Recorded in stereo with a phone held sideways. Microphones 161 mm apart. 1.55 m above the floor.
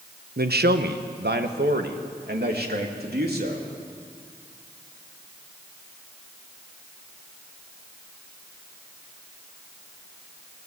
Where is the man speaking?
70° right (ahead or behind), 1.1 m.